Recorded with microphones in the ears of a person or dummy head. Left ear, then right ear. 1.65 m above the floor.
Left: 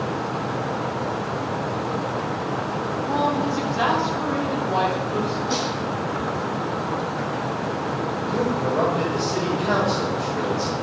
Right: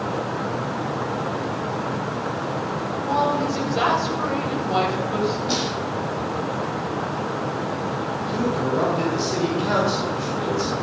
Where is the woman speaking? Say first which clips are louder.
Right 2 dB; 65° right (ahead or behind), 7.5 m.